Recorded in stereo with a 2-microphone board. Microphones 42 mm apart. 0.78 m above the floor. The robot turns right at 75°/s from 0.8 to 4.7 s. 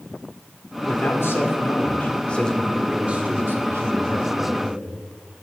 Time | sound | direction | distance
0.8 | a man speaking | 45° left | 2.0 m